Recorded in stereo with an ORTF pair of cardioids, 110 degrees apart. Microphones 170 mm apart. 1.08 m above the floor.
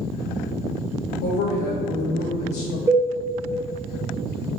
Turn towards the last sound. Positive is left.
turn(degrees=-15)